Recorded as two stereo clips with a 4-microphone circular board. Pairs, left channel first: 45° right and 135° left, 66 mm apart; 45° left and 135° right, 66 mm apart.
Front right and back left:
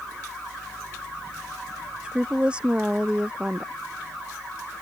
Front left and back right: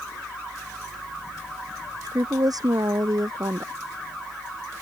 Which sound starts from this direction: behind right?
A woman speaking, at 2.0 s.